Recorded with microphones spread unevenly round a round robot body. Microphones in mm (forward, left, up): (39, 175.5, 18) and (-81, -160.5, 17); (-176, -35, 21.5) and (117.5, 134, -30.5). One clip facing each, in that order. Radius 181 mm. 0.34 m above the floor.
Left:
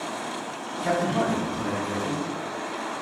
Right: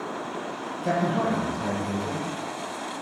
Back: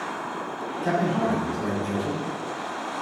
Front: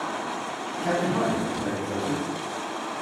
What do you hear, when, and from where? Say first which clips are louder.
0.8 s a man speaking: left 1 dB, even; 90° left, 1.9 m; by 2.2 s 165° left, 1.2 m